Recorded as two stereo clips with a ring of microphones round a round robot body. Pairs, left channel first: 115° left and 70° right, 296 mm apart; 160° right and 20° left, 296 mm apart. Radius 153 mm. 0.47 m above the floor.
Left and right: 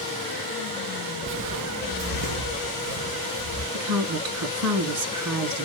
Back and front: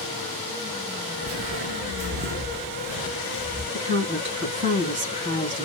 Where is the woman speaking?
30° right, 4.5 m.